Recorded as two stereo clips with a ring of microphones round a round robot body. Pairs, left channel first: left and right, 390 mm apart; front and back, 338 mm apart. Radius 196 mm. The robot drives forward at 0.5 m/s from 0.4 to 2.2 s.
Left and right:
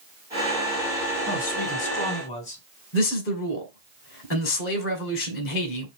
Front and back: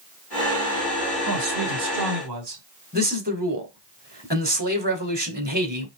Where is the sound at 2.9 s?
130° left, 1.8 m.